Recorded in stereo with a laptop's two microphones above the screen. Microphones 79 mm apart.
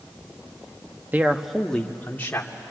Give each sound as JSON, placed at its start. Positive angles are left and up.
{"t": 1.1, "sound": "a man speaking", "side_deg": -25, "distance_m": 1.2}